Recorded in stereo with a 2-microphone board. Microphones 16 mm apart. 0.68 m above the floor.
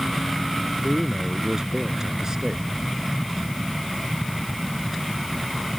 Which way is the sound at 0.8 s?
45° right (ahead or behind).